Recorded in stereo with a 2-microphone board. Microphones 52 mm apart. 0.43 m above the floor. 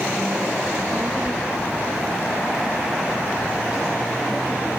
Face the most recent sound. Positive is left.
turn(degrees=-20)  # may be behind; listen again after turning